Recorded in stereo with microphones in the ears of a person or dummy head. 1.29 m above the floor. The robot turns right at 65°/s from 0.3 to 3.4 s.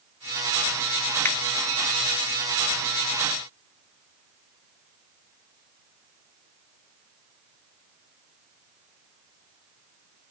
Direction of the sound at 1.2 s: 10° left (ahead or behind).